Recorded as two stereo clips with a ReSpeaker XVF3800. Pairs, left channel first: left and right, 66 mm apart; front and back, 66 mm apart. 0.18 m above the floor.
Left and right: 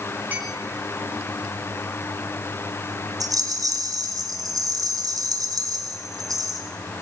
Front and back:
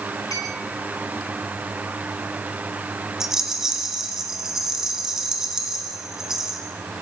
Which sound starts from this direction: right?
A rattle, at 3.2 s.